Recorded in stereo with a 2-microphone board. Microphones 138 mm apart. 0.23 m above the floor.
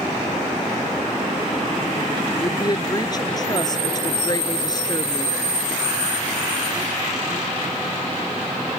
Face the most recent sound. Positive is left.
turn(degrees=30)  # may be behind; listen again after turning